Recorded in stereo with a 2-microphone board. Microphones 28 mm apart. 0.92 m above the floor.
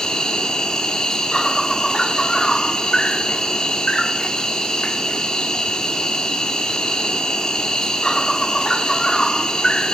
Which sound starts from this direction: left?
An insect, at 0.0 s.